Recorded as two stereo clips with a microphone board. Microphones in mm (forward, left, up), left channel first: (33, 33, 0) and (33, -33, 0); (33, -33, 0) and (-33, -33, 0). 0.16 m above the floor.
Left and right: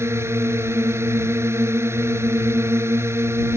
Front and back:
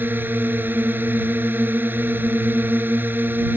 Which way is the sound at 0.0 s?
130° right.